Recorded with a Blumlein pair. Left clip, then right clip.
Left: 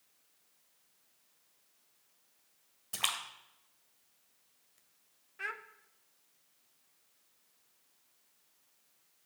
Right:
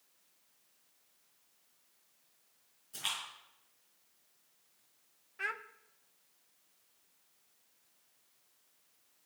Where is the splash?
50° left, 1.7 m.